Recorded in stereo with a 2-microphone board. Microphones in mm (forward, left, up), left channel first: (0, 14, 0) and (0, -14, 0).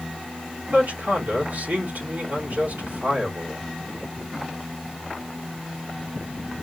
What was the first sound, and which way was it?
A man speaking, 60° right (ahead or behind).